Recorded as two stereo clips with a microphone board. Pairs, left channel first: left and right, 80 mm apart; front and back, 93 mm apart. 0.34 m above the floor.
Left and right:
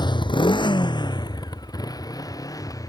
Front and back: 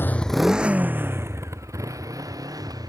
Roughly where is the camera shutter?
No camera shutter in this recording.